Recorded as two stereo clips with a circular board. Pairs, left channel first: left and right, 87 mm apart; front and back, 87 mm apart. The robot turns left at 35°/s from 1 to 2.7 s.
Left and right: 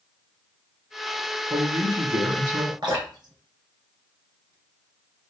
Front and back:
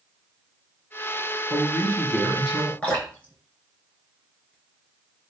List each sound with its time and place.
1.5 s a man speaking: 60° right, 3 m; by 2.7 s 105° right, 3 m
2.8 s dripping: 75° right, 3 m